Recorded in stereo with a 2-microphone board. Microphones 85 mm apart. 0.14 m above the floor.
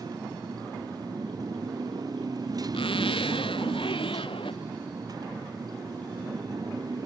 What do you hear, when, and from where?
0.0 s a motorcycle: 45° right (ahead or behind)
2.7 s a zipper: 85° left